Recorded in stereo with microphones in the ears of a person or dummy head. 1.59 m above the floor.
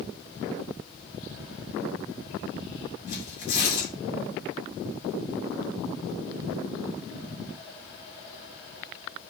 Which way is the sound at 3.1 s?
70° left (ahead or behind).